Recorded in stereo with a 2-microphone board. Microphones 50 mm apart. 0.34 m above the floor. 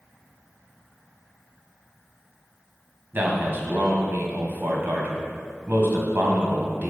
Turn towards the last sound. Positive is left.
turn(degrees=-40)  # may be behind; listen again after turning